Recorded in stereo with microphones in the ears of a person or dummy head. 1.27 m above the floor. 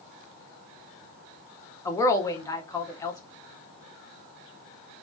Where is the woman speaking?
15° left (ahead or behind), 0.5 m.